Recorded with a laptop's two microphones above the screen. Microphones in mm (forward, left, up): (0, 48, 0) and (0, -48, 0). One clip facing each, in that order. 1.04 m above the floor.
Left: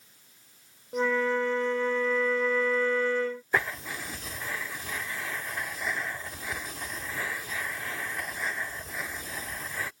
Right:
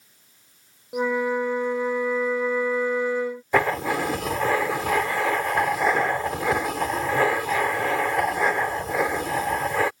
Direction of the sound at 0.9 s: 10° right (ahead or behind).